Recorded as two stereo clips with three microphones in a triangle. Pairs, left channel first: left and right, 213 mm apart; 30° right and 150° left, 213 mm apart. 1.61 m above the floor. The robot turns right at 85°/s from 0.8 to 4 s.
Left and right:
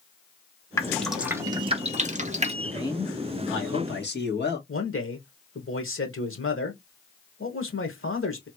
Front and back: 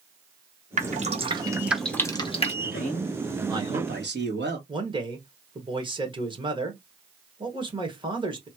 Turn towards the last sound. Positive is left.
turn(degrees=85)